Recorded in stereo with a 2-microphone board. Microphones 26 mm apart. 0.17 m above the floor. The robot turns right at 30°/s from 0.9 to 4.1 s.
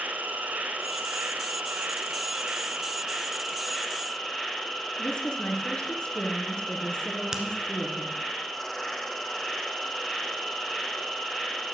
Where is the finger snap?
20° right (ahead or behind), 1.6 m.